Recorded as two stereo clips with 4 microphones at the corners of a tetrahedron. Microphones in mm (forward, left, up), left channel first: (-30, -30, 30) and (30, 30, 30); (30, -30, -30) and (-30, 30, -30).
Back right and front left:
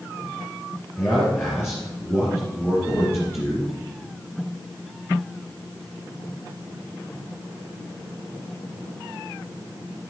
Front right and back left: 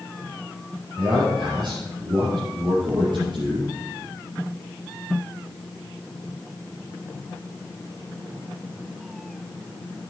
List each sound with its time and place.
1.0 s a man speaking: 165° left, 4.5 m